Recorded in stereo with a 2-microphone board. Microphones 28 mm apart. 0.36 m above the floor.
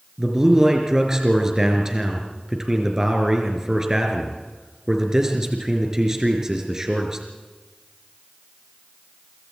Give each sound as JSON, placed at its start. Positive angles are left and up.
{"t": 0.2, "sound": "a man speaking", "side_deg": -20, "distance_m": 4.5}